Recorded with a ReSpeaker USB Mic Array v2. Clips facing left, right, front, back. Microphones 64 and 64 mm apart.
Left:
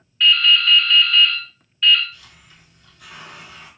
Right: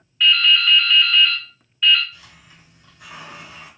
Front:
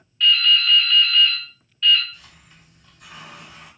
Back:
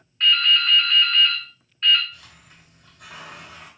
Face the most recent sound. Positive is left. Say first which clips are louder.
# right 1 dB, even
turn(degrees=-165)